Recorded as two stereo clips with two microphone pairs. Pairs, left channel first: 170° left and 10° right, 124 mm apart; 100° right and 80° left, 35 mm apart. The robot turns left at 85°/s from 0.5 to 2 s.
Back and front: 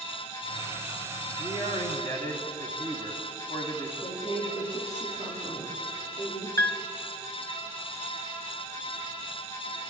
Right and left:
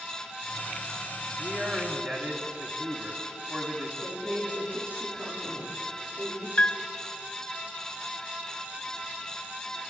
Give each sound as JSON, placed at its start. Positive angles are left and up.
{"t": 1.4, "sound": "a man speaking", "azimuth_deg": 170, "distance_m": 2.5}
{"t": 4.0, "sound": "a woman speaking", "azimuth_deg": 115, "distance_m": 8.0}
{"t": 6.6, "sound": "a piano", "azimuth_deg": -135, "distance_m": 0.6}